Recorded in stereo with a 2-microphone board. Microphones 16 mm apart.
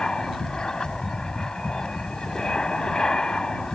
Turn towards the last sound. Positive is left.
turn(degrees=55)  # may be behind; listen again after turning